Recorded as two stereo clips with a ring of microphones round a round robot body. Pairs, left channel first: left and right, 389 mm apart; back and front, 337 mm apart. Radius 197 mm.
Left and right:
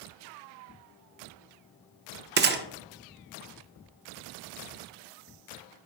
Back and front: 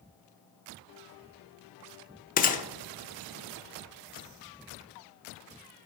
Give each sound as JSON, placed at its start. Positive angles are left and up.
{"t": 2.4, "sound": "a gunshot", "azimuth_deg": -135, "distance_m": 0.6}